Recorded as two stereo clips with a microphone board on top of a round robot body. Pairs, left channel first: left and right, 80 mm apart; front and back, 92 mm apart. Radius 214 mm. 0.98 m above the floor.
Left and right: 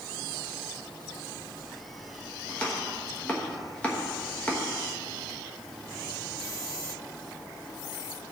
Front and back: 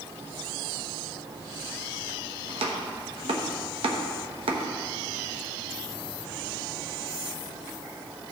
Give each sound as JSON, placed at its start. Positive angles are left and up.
{"t": 2.5, "sound": "chopping", "azimuth_deg": 165, "distance_m": 1.0}